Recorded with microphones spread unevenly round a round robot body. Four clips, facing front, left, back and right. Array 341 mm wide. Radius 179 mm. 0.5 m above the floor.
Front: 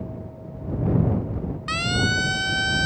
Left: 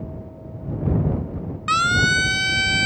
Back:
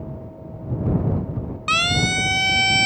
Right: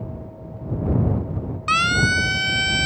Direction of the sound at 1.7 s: 155° left.